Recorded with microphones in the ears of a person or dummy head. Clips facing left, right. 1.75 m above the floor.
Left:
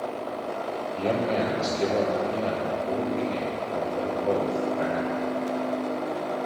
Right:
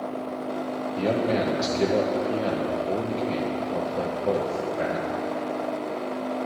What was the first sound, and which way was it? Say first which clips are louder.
A man speaking: right 2 dB; 15° right (ahead or behind).